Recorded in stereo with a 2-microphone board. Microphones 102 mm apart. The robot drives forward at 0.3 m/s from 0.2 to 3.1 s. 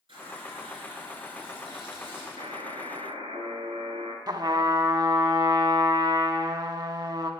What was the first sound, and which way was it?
A running tap, 60° right (ahead or behind).